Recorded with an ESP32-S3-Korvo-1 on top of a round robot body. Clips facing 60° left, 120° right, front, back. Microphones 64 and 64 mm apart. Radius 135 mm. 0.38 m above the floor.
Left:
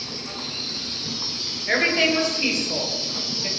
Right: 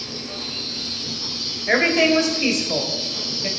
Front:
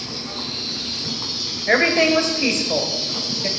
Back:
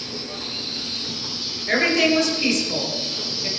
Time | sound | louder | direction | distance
0.0 | an insect | right 1 dB, front 2 dB | 5° left | 2.5 m
1.7 | a woman speaking | right 4 dB, front 2 dB | 50° right | 2.5 m